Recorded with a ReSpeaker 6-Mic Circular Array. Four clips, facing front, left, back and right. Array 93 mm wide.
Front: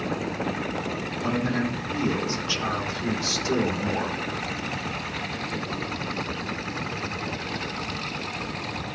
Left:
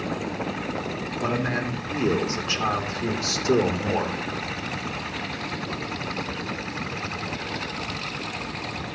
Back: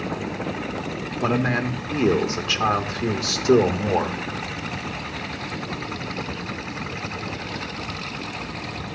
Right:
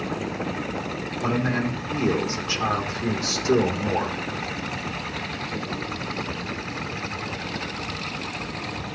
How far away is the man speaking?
About 2.5 m.